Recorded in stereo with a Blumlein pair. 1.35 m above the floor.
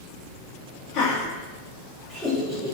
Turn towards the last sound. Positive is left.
turn(degrees=-15)